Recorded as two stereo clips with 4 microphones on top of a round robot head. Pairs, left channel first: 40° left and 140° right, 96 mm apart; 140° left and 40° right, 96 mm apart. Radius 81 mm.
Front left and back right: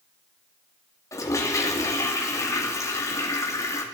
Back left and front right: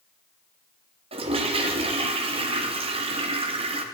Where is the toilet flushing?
20° right, 2 m.